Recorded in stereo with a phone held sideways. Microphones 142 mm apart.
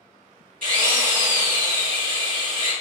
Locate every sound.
0.6 s a drill: 75° right (ahead or behind), 2.5 m